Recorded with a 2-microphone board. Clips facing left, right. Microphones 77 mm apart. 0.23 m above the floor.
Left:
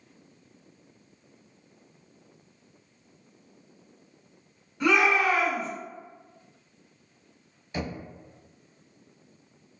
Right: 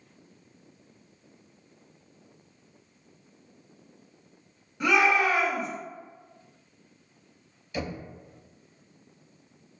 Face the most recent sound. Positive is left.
turn(degrees=35)  # may be behind; listen again after turning